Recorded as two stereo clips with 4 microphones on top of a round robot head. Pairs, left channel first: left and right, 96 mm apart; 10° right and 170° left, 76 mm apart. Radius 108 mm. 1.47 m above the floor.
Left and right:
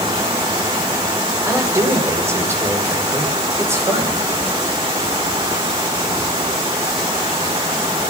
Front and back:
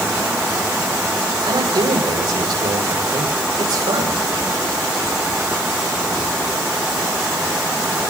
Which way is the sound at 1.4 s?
155° right.